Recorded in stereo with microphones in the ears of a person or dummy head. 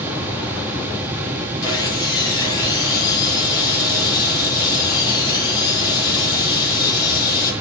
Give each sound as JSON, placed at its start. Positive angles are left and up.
{"t": 1.6, "sound": "sawing", "side_deg": 25, "distance_m": 4.5}